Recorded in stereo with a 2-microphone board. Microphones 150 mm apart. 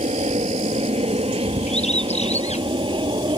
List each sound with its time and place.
0.0 s an aircraft: 45° right (ahead or behind); by 3.4 s 35° right (ahead or behind)
1.7 s a bird: 45° left (ahead or behind)